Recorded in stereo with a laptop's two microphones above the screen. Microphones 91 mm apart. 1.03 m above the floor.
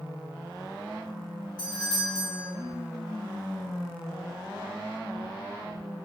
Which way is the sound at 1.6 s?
50° left (ahead or behind).